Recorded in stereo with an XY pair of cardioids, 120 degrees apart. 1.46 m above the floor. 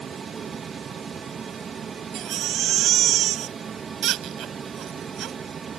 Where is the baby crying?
65° right.